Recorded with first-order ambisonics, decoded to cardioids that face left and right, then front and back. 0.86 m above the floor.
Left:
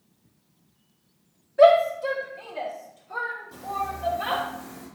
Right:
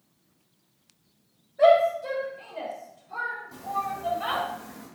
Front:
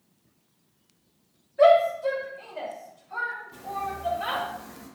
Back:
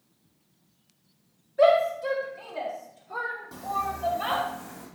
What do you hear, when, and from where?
1.6 s a shout: 105° left, 2 m; by 4.4 s 145° left, 5.5 m
3.5 s footsteps: 175° left, 1.7 m; by 4.9 s 150° left, 3 m